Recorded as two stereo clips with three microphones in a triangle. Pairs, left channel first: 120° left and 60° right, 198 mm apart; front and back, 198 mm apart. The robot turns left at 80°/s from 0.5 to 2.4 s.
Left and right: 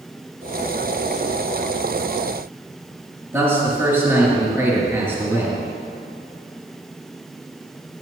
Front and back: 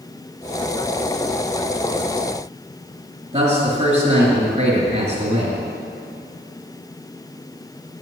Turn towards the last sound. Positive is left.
turn(degrees=-135)